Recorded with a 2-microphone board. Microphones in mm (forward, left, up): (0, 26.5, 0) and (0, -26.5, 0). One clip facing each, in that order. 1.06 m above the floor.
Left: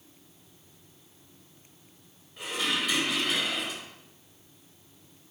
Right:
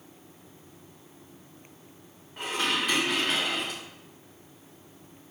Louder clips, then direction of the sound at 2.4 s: Right 2 dB; 50° right (ahead or behind).